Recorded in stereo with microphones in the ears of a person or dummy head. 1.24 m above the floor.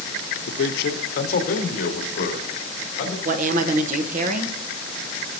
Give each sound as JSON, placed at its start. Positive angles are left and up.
{"t": 0.5, "sound": "a man speaking", "side_deg": 70, "distance_m": 0.9}
{"t": 3.2, "sound": "a woman speaking", "side_deg": -50, "distance_m": 0.9}